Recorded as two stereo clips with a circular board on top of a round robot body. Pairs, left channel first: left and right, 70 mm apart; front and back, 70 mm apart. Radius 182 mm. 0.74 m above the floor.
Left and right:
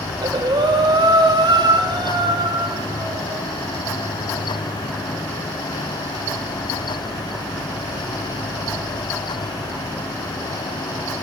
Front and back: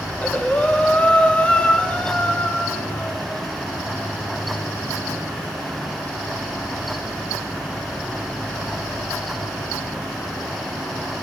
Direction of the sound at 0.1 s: 75° right.